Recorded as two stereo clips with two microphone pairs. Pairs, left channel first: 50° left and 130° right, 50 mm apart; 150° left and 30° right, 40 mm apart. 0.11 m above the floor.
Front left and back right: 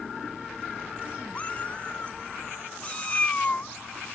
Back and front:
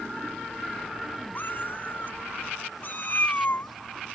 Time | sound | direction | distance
1.4 | a cat meowing | 120° left | ?